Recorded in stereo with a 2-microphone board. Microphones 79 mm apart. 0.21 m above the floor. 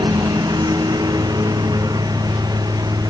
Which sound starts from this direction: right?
A lawn mower, at 0.0 s.